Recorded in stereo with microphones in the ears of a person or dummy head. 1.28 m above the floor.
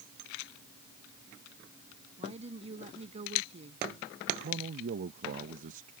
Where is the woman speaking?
35° right (ahead or behind).